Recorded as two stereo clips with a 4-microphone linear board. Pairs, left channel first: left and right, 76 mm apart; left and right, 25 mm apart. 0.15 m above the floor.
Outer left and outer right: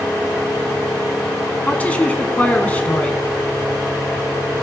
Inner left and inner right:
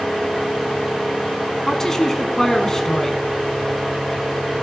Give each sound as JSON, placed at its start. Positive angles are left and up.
{"t": 1.7, "sound": "a woman speaking", "side_deg": 20, "distance_m": 1.1}